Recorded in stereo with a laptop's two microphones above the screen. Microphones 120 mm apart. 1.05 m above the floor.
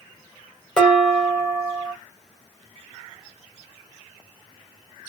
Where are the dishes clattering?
5° left (ahead or behind), 1.9 m.